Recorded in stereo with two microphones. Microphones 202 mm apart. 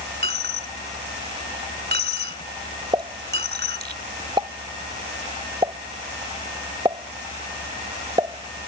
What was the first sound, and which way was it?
A dropped coin, 55° right (ahead or behind).